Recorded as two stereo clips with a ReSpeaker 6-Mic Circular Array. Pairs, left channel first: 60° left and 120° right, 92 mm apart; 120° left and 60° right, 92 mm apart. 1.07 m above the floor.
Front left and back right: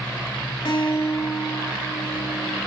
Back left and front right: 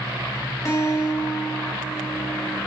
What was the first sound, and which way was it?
A guitar, 70° left.